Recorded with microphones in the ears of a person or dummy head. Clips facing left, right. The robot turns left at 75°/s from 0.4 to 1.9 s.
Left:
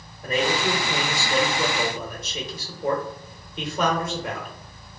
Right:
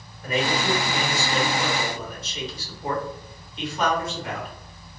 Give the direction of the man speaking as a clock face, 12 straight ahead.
7 o'clock.